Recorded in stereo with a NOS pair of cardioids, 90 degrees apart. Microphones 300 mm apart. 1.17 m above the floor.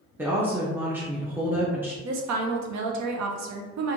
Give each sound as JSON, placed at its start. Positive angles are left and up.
{"t": 0.2, "sound": "a woman speaking", "azimuth_deg": -5, "distance_m": 0.8}
{"t": 2.0, "sound": "a woman speaking", "azimuth_deg": -70, "distance_m": 0.8}